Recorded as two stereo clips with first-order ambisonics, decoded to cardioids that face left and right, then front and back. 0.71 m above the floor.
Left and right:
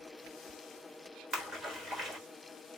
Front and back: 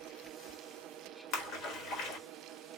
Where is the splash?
25° right, 1.2 m.